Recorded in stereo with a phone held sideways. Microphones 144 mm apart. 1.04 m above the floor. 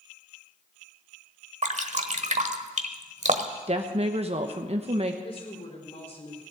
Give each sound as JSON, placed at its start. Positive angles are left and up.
{"t": 1.6, "sound": "dripping", "side_deg": -55, "distance_m": 1.1}
{"t": 3.7, "sound": "a woman speaking", "side_deg": -45, "distance_m": 1.0}
{"t": 5.2, "sound": "a woman speaking", "side_deg": 45, "distance_m": 4.0}